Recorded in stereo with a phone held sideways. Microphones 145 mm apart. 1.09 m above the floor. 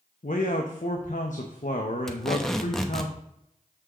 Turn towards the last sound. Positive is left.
turn(degrees=5)  # may be behind; listen again after turning